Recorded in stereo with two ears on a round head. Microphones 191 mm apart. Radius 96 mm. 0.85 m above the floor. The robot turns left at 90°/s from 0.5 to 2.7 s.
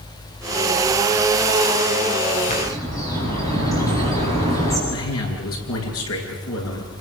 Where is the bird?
35° left (ahead or behind), 9 m; by 4.8 s 15° left (ahead or behind), 9 m.